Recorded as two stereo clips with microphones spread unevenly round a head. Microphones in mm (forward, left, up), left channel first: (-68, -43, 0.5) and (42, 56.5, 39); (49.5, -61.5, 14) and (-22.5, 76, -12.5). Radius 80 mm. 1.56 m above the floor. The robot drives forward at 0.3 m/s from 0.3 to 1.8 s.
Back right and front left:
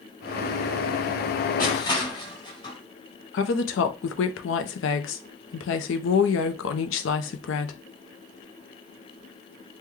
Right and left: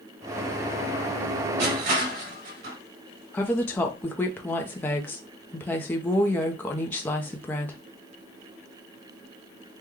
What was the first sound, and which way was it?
Crushing, 150° left.